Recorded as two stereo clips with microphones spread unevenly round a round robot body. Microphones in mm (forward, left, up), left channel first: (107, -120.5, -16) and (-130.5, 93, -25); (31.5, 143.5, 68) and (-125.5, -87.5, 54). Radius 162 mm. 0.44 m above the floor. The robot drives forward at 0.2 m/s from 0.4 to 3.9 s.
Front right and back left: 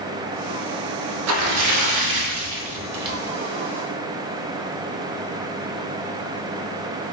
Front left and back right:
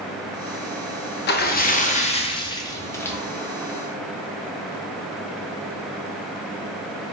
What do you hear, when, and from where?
1.3 s a splash: 105° left, 0.6 m; by 3.2 s 140° left, 0.7 m